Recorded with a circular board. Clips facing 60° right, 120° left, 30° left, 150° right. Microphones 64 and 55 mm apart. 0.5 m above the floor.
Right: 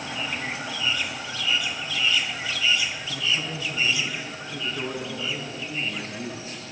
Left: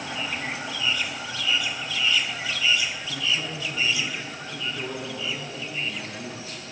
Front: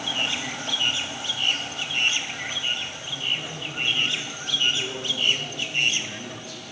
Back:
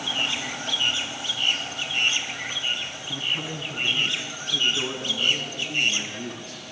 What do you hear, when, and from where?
3.1 s a man speaking: 145° right, 4 m; by 6.6 s 115° right, 7.5 m